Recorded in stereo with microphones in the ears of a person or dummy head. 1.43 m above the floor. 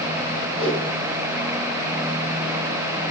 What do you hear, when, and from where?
0.6 s a whoosh: 45° right (ahead or behind), 3.5 m